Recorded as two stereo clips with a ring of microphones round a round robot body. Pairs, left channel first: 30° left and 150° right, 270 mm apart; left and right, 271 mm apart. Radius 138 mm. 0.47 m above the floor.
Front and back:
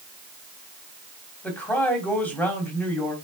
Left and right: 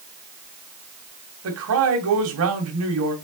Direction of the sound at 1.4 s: 55° right.